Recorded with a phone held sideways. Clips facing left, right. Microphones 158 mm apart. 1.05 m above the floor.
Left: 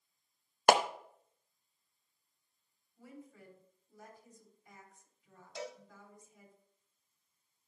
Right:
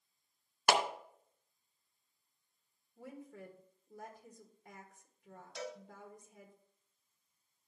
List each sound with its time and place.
0.7 s a clap: 50° left (ahead or behind), 0.7 m
3.0 s a woman speaking: 60° right (ahead or behind), 1.7 m
5.5 s a cowbell: 25° left (ahead or behind), 1.9 m